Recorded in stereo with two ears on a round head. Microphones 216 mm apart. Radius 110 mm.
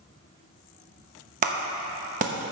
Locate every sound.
1.4 s a clap: 30° right (ahead or behind), 0.9 m